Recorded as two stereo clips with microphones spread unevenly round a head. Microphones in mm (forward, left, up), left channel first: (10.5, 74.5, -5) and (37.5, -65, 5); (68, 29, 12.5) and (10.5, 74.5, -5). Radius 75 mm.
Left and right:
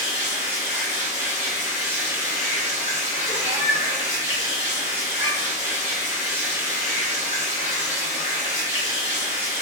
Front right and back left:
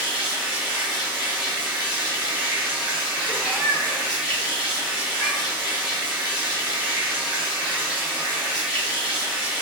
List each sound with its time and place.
0.0 s running water: 10° right, 1.7 m
3.3 s a cat meowing: 70° right, 0.9 m